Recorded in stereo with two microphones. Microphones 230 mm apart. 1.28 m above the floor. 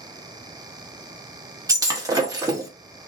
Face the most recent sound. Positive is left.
turn(degrees=-15)  # may be behind; listen again after turning